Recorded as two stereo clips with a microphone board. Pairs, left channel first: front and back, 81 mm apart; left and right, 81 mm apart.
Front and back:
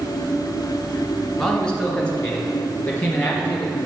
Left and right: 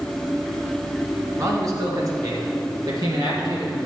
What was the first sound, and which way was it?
A man speaking, 80° right.